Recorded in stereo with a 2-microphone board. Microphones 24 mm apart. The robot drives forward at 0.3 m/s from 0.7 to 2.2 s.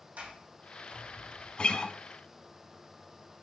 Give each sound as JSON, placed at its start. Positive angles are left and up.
{"t": 0.2, "sound": "a sliding door", "side_deg": -60, "distance_m": 3.5}
{"t": 1.6, "sound": "a guitar", "side_deg": 40, "distance_m": 0.7}